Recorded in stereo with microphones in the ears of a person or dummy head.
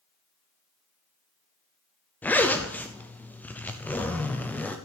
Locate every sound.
2.2 s a zipper: 10° left (ahead or behind), 0.6 m